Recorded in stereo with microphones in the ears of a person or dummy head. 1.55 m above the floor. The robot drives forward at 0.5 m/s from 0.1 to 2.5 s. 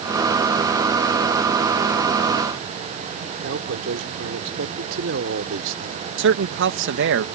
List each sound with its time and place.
3.4 s a man speaking: 75° right (ahead or behind)
6.2 s a man speaking: 65° right (ahead or behind)